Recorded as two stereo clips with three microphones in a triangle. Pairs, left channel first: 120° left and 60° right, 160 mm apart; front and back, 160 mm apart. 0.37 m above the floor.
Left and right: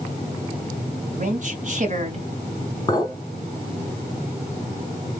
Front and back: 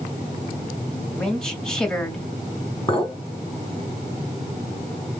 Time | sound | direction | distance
1.1 | a woman speaking | 85° right | 1.8 m
2.9 | a clink | 55° left | 3 m